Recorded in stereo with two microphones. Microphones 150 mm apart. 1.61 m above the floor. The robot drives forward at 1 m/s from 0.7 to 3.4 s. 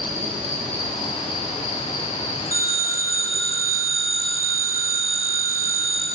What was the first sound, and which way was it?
An insect, 45° right (ahead or behind).